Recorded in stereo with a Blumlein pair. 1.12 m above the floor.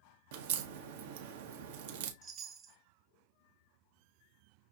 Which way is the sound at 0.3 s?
55° right.